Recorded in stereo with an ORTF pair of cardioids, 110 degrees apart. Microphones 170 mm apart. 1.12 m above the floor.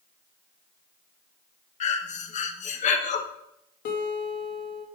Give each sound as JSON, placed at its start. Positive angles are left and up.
{"t": 1.8, "sound": "breathing", "azimuth_deg": 45, "distance_m": 0.9}
{"t": 3.9, "sound": "a guitar", "azimuth_deg": 65, "distance_m": 1.3}